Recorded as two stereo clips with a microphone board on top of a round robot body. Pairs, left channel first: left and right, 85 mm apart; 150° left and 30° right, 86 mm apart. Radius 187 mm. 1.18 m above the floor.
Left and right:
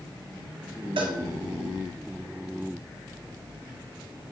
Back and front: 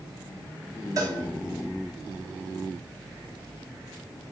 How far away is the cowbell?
About 3 m.